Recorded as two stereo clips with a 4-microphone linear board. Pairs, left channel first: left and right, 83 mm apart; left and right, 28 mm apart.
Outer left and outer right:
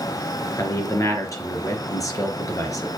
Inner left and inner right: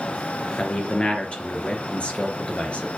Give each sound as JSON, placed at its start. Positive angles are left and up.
{"t": 0.6, "sound": "a man speaking", "side_deg": 45, "distance_m": 3.0}